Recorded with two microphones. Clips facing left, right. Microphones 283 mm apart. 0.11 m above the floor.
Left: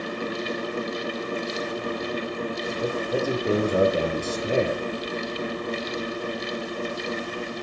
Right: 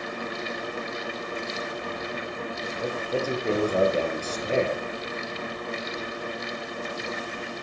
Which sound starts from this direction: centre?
A man speaking, at 2.8 s.